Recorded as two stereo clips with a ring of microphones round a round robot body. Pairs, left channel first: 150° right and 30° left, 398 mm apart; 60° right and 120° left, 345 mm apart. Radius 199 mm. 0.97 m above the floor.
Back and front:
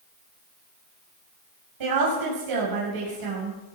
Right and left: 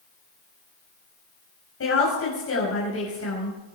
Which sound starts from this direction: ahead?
A woman speaking, at 1.8 s.